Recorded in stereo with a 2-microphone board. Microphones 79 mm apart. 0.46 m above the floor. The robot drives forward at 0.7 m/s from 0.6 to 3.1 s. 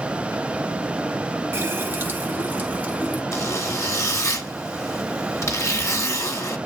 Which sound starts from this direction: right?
A running tap, at 1.5 s.